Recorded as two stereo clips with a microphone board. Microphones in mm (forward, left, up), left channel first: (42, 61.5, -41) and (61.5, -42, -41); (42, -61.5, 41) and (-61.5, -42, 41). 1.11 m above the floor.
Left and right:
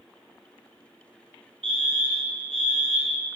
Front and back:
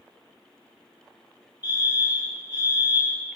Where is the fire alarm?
60° right, 3 m.